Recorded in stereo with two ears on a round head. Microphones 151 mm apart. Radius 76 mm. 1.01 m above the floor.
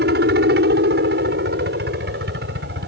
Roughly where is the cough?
I don't hear a cough.